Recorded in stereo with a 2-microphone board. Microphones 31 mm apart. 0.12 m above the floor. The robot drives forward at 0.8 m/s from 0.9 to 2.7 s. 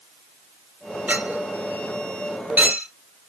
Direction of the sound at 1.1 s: 65° right (ahead or behind).